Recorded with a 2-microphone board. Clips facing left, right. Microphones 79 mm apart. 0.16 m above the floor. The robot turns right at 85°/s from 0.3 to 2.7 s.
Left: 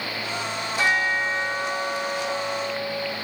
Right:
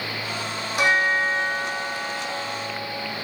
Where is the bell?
65° right, 6.5 m; by 3.1 s 100° left, 6.5 m.